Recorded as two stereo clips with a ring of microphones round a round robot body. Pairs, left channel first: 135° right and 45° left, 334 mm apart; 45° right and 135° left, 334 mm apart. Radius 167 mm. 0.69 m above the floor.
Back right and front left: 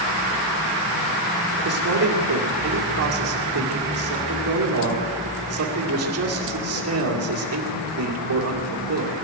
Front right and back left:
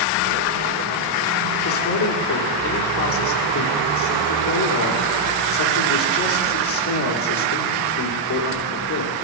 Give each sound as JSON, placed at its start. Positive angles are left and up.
{"t": 1.6, "sound": "a man speaking", "azimuth_deg": 0, "distance_m": 2.0}